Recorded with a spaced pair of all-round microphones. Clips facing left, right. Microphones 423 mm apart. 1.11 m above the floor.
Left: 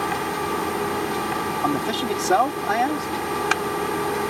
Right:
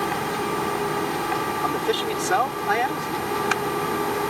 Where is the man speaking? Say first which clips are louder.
Left 1 dB; 55° left (ahead or behind).